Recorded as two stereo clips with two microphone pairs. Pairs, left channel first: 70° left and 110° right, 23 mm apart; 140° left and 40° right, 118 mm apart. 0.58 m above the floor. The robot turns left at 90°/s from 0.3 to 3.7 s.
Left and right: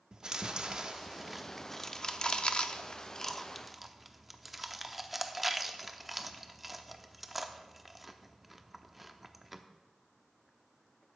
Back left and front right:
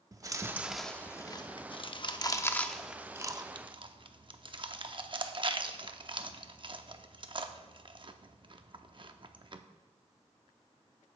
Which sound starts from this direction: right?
Chewing, at 0.1 s.